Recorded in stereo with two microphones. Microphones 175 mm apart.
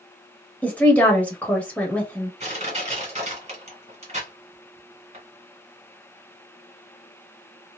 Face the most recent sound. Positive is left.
turn(degrees=-40)  # may be behind; listen again after turning